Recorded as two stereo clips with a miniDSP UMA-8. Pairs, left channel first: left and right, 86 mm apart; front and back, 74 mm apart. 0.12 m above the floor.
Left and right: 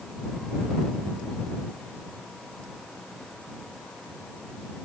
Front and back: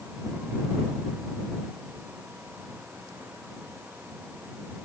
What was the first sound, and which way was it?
Only background noise.